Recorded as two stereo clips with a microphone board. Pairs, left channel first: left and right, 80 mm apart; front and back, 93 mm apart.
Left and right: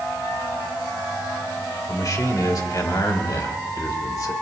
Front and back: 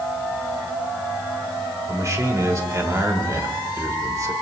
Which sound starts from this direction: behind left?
A man speaking, at 1.9 s.